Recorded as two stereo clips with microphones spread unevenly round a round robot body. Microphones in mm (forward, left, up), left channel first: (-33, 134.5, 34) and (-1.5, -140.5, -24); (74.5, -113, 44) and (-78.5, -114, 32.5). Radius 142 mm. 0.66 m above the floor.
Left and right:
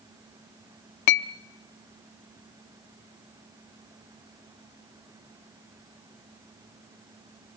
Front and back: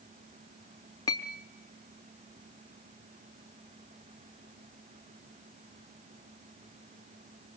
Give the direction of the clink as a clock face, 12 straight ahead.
9 o'clock.